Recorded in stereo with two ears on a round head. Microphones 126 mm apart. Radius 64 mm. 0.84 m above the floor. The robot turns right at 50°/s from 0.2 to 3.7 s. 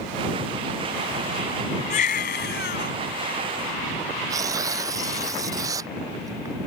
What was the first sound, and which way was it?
A baby crying, 50° left.